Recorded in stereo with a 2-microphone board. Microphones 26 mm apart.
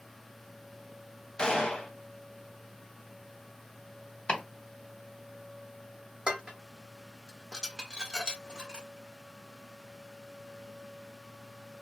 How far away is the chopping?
About 1.1 m.